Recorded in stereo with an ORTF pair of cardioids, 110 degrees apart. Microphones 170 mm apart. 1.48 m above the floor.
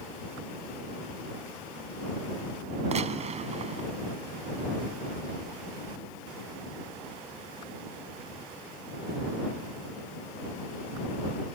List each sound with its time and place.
2.9 s a gunshot: 40° right